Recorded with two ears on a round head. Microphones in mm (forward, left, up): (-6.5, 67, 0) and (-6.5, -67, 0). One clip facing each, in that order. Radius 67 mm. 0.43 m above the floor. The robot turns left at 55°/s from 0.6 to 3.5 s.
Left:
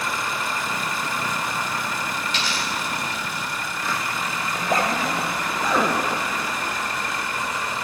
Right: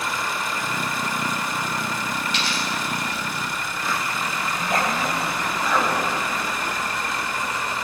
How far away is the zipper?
About 3.5 m.